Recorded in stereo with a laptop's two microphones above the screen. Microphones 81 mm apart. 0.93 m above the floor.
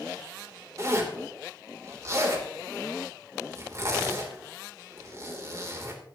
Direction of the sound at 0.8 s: 40° right (ahead or behind).